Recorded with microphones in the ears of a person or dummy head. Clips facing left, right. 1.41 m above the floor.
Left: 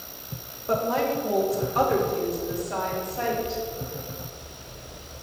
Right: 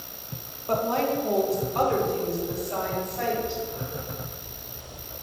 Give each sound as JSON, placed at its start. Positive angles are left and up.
{"t": 0.7, "sound": "a woman speaking", "side_deg": 20, "distance_m": 1.9}